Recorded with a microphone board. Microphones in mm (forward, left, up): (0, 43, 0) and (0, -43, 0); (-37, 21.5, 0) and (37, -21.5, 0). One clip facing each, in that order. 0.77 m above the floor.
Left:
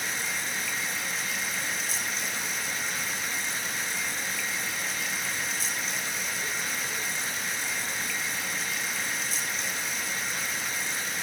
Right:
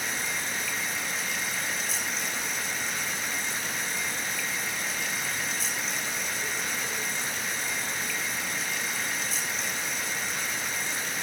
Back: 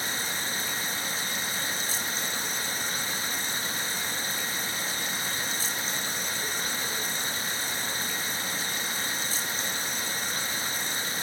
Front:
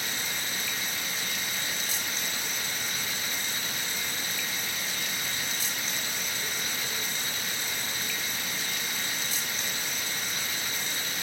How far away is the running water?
About 0.8 m.